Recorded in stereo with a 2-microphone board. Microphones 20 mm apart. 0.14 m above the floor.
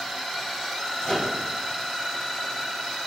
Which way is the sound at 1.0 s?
40° left (ahead or behind).